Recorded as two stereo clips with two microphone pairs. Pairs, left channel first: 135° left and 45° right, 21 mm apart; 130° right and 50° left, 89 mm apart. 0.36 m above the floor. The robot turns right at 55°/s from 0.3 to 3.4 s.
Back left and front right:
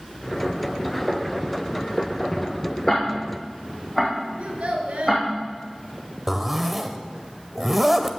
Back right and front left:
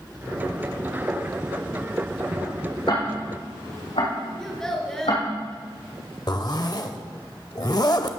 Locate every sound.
2.9 s ticking: 160° right, 4.5 m; by 5.2 s 130° right, 4.5 m
4.4 s a child speaking: 50° right, 3 m
6.3 s a zipper: 120° right, 0.8 m